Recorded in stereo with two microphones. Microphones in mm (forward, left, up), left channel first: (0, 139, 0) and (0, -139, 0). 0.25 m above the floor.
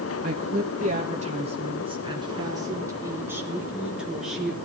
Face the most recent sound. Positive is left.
turn(degrees=0)  # may be behind; listen again after turning